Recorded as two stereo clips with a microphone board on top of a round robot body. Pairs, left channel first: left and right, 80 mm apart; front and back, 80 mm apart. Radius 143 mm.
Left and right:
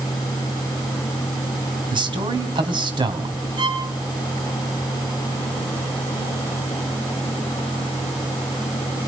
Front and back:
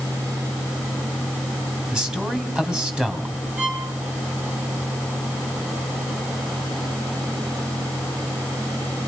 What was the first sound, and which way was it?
A man speaking, 100° right.